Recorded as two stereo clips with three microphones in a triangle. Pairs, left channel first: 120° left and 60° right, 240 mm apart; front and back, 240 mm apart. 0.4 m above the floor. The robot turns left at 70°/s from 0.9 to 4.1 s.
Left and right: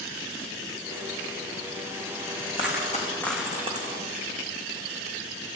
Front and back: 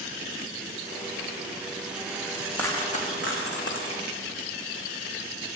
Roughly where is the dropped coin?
Left.